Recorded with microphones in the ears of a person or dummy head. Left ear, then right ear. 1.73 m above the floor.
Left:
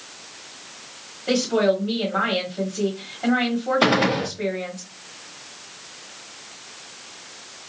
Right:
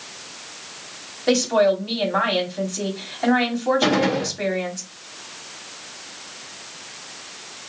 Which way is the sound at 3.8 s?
60° left (ahead or behind).